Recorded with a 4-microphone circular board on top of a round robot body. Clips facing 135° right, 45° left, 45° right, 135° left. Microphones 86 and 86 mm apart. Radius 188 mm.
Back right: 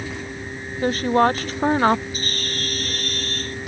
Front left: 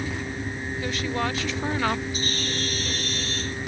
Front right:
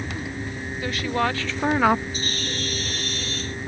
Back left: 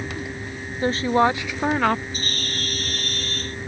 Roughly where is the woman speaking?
Behind.